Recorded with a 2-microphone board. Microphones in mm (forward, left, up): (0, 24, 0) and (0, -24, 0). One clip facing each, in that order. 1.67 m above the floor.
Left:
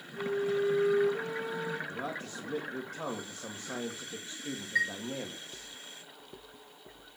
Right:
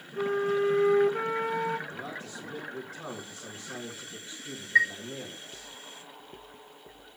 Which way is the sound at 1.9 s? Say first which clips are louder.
Left 1 dB; 50° left (ahead or behind).